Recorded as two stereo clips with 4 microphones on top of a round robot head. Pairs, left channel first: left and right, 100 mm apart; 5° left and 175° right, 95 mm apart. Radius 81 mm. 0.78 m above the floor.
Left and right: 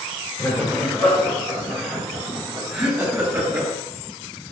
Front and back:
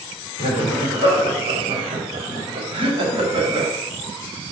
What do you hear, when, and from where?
0.4 s laughter: 170° left, 3 m; by 3.7 s 160° right, 2 m